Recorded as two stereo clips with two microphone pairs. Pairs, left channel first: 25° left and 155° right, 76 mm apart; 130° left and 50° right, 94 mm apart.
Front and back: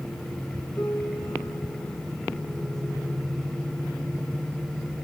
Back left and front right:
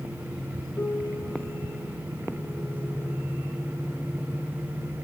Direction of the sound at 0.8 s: 70° left.